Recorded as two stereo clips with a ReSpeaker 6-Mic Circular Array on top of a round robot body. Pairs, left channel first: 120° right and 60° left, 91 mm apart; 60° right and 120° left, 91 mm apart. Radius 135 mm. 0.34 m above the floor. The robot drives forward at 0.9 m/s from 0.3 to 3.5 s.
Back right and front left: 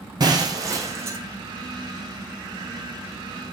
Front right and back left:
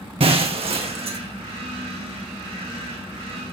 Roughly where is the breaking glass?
Left.